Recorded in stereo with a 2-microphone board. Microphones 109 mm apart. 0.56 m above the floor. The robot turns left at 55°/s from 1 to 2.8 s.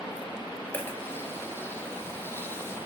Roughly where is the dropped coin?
Left.